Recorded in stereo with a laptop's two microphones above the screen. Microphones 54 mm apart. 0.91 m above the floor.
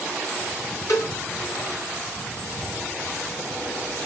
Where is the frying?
No frying in this recording.